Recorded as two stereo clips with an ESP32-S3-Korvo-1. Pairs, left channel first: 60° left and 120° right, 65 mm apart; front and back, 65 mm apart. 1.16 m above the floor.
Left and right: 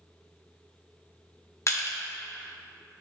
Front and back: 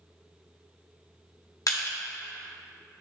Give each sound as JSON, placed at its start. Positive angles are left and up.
{"t": 1.7, "sound": "crushing", "azimuth_deg": 20, "distance_m": 0.9}